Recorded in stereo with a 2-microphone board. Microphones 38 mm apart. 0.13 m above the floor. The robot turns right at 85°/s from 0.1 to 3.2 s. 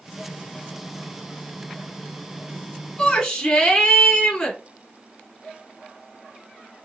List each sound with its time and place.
3.0 s a shout: 25° left (ahead or behind), 1.1 m